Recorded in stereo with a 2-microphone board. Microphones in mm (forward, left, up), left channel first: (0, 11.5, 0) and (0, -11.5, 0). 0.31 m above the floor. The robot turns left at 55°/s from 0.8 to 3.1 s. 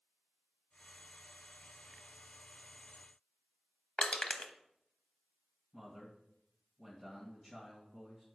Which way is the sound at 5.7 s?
15° left (ahead or behind).